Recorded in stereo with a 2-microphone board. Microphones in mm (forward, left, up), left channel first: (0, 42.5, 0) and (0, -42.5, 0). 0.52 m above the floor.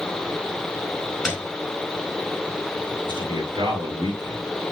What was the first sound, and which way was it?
A piano, 5° left (ahead or behind).